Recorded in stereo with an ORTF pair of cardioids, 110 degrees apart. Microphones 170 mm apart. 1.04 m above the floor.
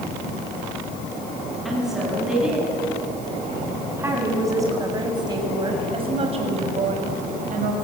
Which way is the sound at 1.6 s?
Straight ahead.